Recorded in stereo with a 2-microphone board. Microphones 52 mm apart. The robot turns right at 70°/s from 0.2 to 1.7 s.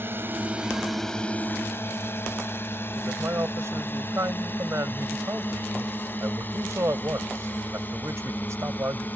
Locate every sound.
0.0 s a drone: 45° right (ahead or behind); by 9.2 s 35° left (ahead or behind)
3.0 s a man speaking: 65° right (ahead or behind)